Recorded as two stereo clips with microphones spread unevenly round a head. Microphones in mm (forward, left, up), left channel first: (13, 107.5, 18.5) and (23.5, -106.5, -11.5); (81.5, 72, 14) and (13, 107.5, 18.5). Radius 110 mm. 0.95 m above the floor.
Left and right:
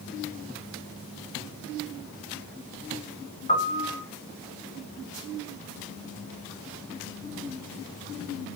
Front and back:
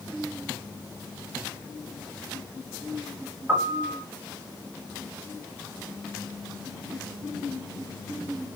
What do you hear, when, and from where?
3.5 s a piano: 110° left, 0.9 m